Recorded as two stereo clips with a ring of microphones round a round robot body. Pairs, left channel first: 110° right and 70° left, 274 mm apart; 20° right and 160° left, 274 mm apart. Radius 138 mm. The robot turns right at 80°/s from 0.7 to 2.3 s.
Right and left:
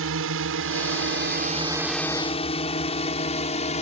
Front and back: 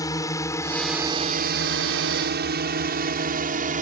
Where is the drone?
50° left; by 3.8 s 165° right.